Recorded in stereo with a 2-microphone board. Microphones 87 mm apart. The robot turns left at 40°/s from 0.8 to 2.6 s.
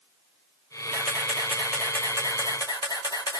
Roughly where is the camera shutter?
Behind.